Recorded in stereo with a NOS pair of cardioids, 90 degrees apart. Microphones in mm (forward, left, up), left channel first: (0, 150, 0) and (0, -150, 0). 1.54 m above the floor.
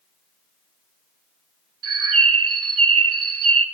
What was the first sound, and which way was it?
A bird, 50° right.